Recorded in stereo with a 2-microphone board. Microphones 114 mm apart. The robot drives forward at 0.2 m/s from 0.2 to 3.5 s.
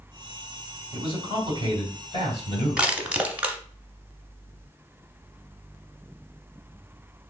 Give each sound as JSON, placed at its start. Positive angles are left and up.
{"t": 0.9, "sound": "a man speaking", "side_deg": 45, "distance_m": 2.0}
{"t": 2.8, "sound": "crushing", "side_deg": -10, "distance_m": 0.6}